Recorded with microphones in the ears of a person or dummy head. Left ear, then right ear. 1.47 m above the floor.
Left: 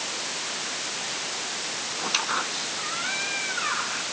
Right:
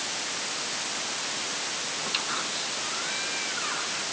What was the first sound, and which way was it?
A squeak, 30° left (ahead or behind).